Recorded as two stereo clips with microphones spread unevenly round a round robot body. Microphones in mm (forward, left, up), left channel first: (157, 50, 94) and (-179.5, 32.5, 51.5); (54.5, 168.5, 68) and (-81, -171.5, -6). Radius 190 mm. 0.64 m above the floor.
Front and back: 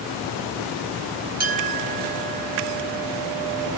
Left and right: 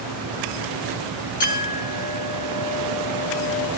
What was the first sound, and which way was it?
A clink, 140° left.